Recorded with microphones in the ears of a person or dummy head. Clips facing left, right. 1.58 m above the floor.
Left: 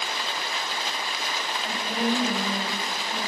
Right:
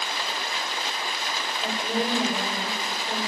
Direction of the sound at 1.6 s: 30° right (ahead or behind).